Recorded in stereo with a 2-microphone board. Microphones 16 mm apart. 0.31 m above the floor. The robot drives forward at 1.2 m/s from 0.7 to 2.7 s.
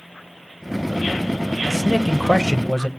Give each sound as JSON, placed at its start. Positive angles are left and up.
{"t": 1.7, "sound": "a man speaking", "side_deg": 15, "distance_m": 1.0}